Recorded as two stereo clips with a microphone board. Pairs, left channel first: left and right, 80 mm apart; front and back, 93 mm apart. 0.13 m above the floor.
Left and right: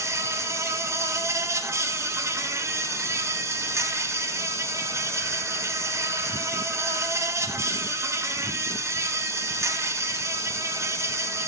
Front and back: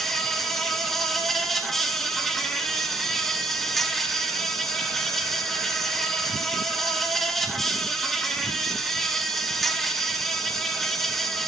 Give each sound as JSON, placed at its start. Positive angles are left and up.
{"t": 0.0, "sound": "an insect", "azimuth_deg": -85, "distance_m": 1.0}